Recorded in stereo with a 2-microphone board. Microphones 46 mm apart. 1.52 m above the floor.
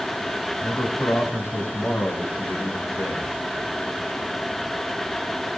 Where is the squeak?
No squeak in this recording.